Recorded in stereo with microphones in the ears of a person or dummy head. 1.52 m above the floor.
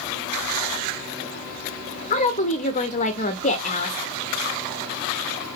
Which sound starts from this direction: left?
A woman speaking, at 2.1 s.